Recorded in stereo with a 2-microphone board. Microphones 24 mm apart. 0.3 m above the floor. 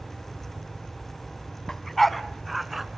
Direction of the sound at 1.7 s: 15° left (ahead or behind).